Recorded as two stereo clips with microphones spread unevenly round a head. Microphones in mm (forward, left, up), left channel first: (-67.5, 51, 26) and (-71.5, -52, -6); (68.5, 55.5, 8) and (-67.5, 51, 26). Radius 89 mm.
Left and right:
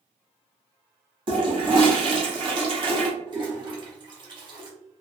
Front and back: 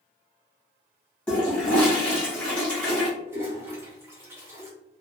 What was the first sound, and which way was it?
A toilet flushing, 85° right.